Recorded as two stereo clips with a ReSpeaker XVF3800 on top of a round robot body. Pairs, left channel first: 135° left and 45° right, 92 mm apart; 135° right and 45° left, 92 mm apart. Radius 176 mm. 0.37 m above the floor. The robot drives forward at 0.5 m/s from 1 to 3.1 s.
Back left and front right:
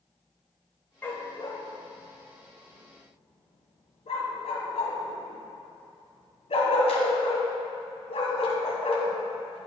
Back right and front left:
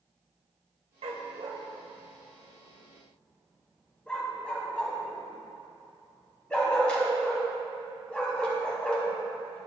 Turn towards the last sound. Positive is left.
turn(degrees=145)